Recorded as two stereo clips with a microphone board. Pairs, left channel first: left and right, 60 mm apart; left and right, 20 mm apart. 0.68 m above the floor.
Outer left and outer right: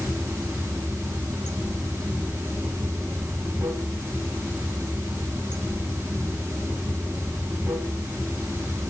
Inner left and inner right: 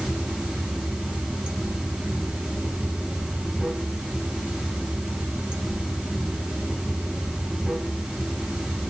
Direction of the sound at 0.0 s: 50° right (ahead or behind).